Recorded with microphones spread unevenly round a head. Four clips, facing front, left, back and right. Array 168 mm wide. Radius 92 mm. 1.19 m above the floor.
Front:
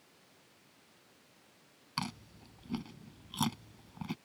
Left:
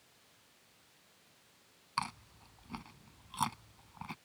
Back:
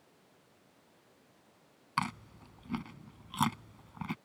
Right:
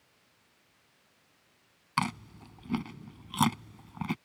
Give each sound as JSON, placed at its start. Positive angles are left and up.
{"t": 2.0, "sound": "chewing", "azimuth_deg": -100}